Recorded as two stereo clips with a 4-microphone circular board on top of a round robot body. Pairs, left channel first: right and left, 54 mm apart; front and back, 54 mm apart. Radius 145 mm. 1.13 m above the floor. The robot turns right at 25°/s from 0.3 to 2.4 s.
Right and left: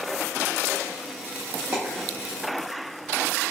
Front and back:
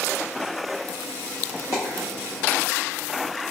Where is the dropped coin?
30° left, 0.6 m; by 2.1 s 35° left, 0.6 m.